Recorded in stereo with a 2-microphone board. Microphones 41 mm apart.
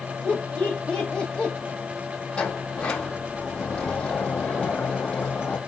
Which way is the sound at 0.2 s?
20° left (ahead or behind).